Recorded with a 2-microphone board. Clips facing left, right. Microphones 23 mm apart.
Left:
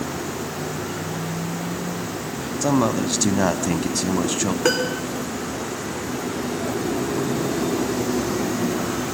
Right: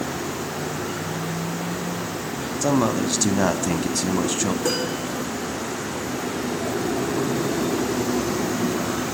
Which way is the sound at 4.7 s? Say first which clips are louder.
Left 3 dB; 45° left (ahead or behind).